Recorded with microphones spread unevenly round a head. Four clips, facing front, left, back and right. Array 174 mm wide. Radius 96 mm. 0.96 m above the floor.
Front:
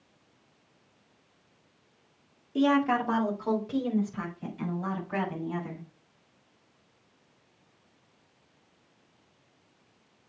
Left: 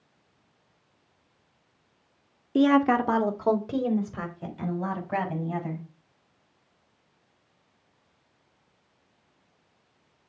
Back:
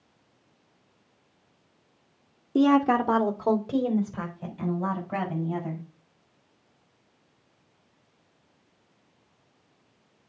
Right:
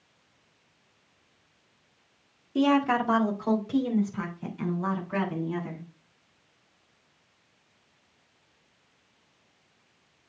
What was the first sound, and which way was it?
A woman speaking, 145° left.